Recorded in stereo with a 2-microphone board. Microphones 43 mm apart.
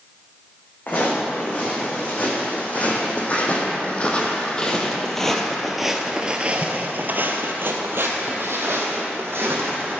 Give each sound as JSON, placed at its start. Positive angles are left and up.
{"t": 0.9, "sound": "footsteps", "side_deg": 45, "distance_m": 3.5}